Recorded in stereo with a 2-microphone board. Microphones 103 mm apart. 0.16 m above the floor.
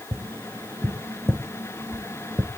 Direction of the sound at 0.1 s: 25° right (ahead or behind).